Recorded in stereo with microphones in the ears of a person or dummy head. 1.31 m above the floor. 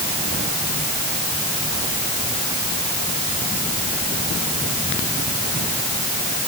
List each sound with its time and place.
Only background noise.